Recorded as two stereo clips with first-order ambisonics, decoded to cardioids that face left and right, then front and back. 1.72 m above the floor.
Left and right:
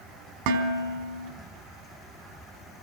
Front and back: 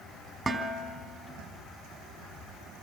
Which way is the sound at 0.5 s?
95° right.